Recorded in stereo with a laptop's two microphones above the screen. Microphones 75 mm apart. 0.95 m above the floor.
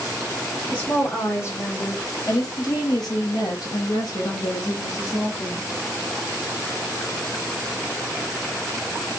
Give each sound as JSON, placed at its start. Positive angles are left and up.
{"t": 0.7, "sound": "a woman speaking", "side_deg": 20, "distance_m": 1.2}